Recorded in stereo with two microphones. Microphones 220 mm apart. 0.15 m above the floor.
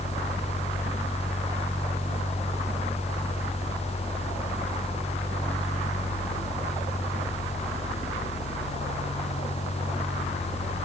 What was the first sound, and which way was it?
Only background noise.